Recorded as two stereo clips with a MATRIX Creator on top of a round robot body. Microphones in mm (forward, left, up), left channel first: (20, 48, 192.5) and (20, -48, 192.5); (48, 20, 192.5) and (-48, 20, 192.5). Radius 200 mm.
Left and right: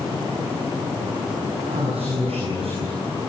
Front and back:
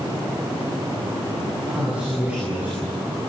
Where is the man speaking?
100° right, 8.5 m; by 3.0 s 105° right, 9 m.